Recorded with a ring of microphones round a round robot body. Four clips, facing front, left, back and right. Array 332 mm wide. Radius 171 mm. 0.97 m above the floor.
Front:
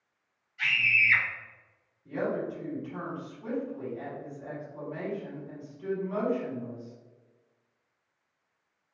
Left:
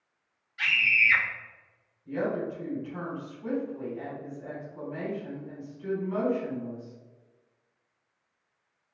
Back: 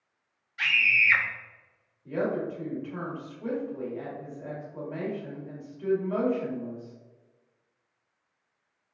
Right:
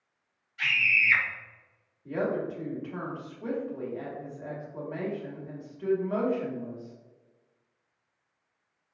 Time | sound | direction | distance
0.6 | a scream | 170° left | 1.9 m
2.0 | a woman speaking | 120° right | 2.0 m